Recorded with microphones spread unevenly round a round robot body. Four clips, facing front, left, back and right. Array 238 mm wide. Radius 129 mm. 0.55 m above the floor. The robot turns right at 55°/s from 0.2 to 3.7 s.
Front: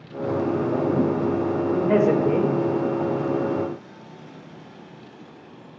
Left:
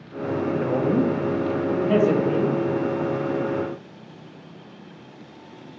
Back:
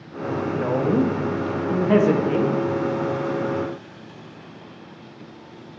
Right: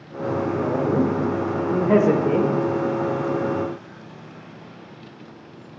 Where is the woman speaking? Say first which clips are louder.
Even, back 4 dB; 165° left, 1.0 m; by 2.5 s 85° right, 1.0 m.